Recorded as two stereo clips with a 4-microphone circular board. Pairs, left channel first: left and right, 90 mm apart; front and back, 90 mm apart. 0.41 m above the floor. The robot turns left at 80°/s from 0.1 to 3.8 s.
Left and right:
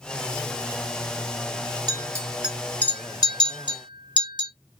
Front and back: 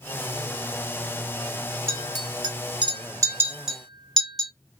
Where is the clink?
120° right, 1.6 m; by 4.5 s 85° left, 1.6 m.